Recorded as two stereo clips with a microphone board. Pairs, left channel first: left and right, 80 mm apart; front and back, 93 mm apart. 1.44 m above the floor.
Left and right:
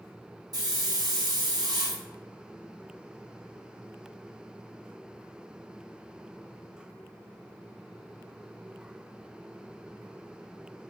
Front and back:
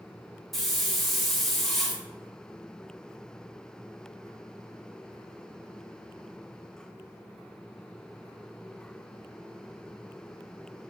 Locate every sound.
0.5 s a hiss: 90° right, 0.7 m